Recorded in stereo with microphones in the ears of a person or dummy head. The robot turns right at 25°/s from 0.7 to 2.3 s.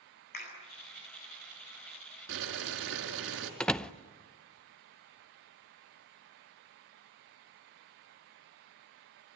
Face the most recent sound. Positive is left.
turn(degrees=0)  # may be behind; listen again after turning